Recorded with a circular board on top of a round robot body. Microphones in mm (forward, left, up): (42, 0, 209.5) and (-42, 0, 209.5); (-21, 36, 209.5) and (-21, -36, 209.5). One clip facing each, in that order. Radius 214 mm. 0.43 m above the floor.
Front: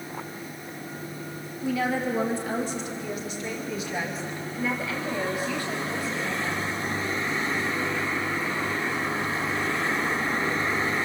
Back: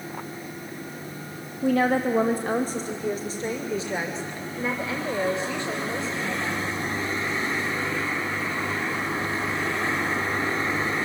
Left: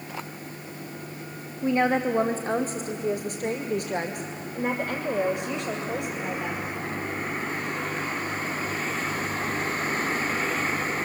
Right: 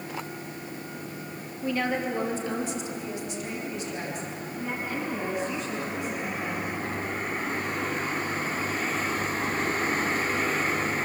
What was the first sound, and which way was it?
A woman speaking, 155° left.